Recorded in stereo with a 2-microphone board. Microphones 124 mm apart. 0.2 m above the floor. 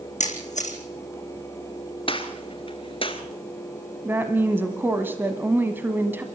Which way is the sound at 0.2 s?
75° left (ahead or behind).